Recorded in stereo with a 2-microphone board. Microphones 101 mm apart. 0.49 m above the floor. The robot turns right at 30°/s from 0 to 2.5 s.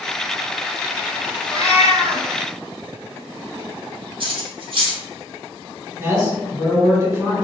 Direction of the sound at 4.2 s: 55° right (ahead or behind).